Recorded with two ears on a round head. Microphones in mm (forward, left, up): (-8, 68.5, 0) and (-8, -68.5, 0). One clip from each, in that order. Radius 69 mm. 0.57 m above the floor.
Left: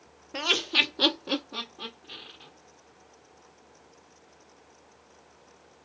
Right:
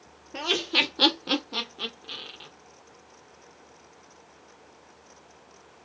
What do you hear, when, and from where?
0.3 s laughter: 30° left (ahead or behind), 0.8 m; by 2.5 s 65° right (ahead or behind), 1.7 m